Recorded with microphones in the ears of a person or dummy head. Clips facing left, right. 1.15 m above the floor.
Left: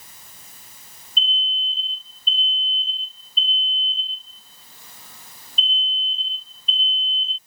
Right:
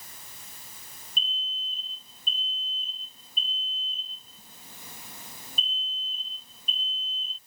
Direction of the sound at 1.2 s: 20° right (ahead or behind).